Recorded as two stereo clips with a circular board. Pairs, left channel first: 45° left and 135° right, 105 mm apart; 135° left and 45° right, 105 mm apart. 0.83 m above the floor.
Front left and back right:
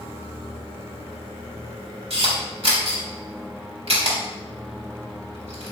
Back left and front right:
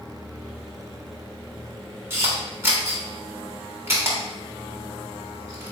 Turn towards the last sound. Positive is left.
turn(degrees=-110)